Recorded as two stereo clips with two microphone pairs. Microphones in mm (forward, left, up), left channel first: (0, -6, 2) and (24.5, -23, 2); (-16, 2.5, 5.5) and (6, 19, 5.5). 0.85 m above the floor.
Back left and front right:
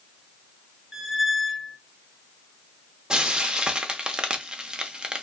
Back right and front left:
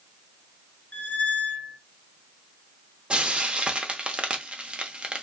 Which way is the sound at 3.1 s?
10° left.